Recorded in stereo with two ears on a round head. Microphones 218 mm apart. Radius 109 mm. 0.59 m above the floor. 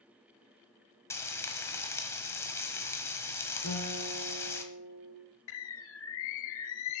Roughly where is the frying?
Centre.